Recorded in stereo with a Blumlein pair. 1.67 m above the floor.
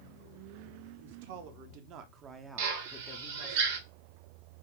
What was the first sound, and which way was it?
A man speaking, 60° right.